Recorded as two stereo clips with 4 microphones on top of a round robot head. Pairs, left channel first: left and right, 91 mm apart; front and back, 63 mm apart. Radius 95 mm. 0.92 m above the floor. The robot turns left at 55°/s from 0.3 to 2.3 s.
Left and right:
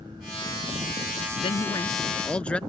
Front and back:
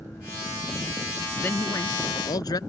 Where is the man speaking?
60° left; by 2.6 s 10° left.